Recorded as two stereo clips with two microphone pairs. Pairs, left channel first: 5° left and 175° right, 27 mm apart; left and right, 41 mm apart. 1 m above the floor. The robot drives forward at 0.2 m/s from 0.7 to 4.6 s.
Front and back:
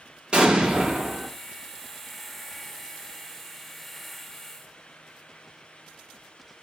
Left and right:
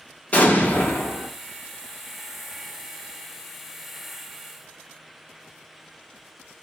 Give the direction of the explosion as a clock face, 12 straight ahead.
7 o'clock.